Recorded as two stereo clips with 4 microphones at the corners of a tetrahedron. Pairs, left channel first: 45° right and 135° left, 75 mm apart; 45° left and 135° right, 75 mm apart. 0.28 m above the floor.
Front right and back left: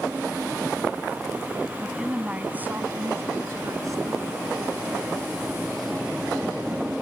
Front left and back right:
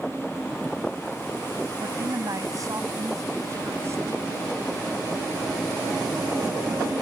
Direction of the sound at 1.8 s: 135° right.